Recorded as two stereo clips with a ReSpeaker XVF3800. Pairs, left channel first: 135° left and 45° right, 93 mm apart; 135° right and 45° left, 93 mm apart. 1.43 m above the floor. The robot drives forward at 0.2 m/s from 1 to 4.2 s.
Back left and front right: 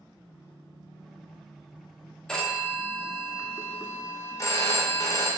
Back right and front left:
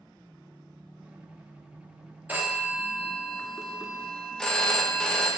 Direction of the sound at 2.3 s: 70° left.